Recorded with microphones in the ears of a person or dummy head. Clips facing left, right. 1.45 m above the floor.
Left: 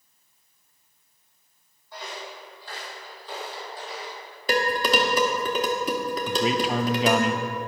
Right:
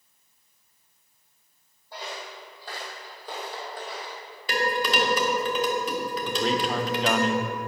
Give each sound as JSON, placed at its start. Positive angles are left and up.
{"t": 1.9, "sound": "footsteps", "side_deg": -30, "distance_m": 3.0}
{"t": 4.5, "sound": "dishes clattering", "side_deg": 40, "distance_m": 1.6}
{"t": 6.3, "sound": "a man speaking", "side_deg": 10, "distance_m": 0.7}